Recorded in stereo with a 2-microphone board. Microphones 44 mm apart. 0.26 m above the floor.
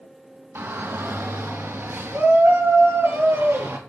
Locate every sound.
0.6 s a shout: 65° right (ahead or behind), 3.5 m; by 3.8 s 75° right (ahead or behind), 7.5 m